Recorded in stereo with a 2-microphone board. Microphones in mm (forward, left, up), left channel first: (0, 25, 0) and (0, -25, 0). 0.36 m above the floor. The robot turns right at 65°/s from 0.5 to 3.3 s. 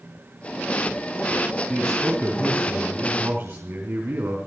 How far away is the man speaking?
About 3.5 m.